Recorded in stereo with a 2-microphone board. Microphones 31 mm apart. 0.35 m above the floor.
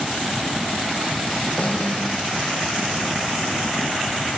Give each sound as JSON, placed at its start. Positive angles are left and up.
{"t": 1.6, "sound": "a snare drum", "side_deg": 40, "distance_m": 4.5}